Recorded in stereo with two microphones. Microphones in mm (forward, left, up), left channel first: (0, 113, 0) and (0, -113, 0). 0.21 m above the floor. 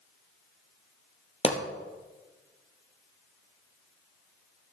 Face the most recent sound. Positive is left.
turn(degrees=30)  # may be behind; listen again after turning